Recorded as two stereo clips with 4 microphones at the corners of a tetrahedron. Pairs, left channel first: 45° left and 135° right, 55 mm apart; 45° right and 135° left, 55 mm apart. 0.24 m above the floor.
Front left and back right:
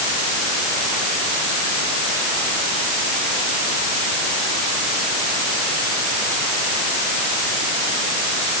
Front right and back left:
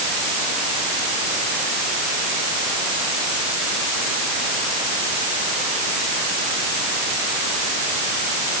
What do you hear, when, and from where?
Only background noise.